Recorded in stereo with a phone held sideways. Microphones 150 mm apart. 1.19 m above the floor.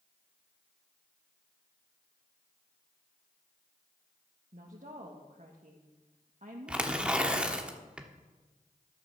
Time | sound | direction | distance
4.5 | a woman speaking | 55° right (ahead or behind) | 1.5 m
6.7 | tearing paper | 5° right (ahead or behind) | 1.2 m